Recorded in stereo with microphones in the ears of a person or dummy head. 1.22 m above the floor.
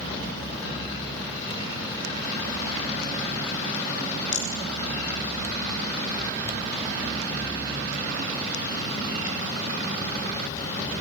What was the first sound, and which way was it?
A rattle, 75° left (ahead or behind).